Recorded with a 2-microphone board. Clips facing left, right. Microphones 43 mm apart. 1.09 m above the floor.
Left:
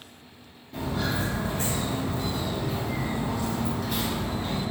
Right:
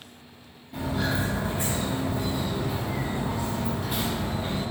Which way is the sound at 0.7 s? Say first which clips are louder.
Right 1 dB; 10° right (ahead or behind).